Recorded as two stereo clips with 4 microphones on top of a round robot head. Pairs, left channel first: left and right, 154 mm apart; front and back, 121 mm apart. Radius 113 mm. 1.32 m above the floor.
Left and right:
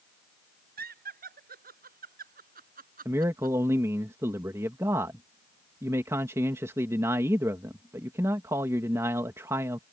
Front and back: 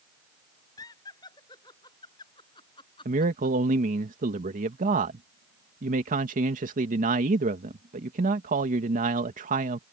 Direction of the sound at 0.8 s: 70° right.